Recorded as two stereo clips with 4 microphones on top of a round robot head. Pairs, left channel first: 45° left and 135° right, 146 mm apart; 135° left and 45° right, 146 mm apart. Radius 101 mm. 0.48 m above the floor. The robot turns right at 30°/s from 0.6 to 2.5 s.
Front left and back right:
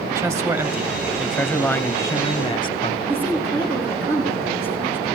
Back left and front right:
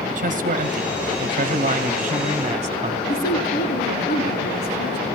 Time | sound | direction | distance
0.1 | a man speaking | 55° right | 1.3 m
3.1 | a woman speaking | 150° left | 7 m